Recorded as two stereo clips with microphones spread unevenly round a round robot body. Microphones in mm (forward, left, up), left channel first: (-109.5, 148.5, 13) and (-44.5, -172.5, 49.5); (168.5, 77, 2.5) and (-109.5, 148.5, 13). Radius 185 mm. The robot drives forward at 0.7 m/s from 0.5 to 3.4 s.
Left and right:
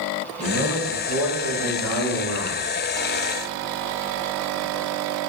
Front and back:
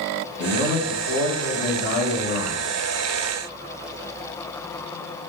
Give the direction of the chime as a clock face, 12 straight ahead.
I don't hear a chime.